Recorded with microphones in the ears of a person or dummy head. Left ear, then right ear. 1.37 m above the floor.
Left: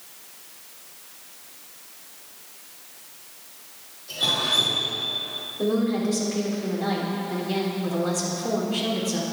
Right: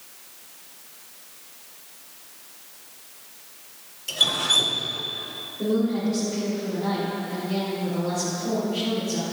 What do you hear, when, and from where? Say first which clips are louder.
4.1 s dripping: right 2 dB; 60° right (ahead or behind), 1.3 m
5.6 s a woman speaking: even; 60° left (ahead or behind), 3.5 m